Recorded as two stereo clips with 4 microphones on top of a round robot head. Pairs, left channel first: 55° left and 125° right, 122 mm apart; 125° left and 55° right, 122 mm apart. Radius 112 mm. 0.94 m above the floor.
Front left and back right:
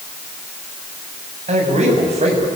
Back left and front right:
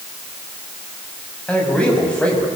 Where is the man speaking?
155° right, 6.5 m.